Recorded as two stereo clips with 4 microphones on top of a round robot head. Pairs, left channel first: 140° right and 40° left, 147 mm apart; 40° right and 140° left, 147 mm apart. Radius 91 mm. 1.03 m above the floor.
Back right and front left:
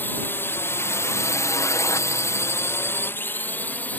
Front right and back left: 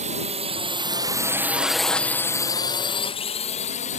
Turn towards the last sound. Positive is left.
turn(degrees=-65)